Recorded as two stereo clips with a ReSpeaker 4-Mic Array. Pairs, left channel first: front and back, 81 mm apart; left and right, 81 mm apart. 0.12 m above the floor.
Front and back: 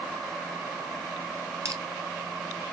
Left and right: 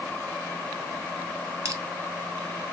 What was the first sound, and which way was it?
Crushing, 135° right.